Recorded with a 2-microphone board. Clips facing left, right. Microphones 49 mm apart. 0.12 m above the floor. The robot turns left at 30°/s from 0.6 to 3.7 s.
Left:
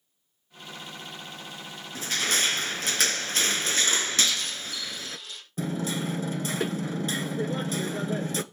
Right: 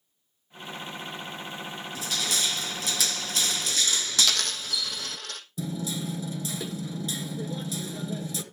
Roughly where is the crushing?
Behind left.